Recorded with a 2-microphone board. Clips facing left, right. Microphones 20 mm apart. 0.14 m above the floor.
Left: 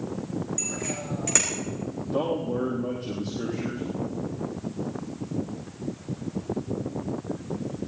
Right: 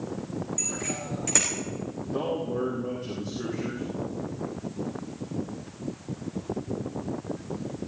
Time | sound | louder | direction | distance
0.6 | a bicycle bell | left 1 dB | 15° left (ahead or behind) | 7 m
2.1 | a man speaking | left 2 dB | 35° left (ahead or behind) | 5 m